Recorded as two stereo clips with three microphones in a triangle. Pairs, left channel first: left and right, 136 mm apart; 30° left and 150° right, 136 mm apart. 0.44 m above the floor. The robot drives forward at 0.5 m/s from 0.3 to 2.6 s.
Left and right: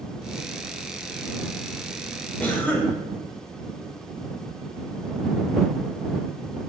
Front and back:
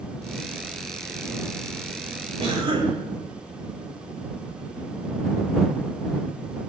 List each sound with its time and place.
2.4 s a cough: 170° left, 1.7 m